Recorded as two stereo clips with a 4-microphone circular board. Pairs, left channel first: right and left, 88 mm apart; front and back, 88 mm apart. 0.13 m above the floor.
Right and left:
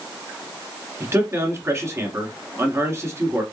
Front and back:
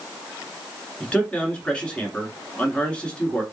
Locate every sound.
1.0 s a man speaking: 65° left, 1.4 m